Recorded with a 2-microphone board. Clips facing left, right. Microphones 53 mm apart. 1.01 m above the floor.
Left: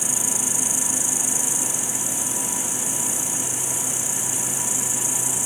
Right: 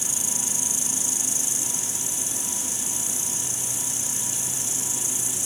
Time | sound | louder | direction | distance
0.0 | an insect | left 5 dB | 20° left (ahead or behind) | 1.5 m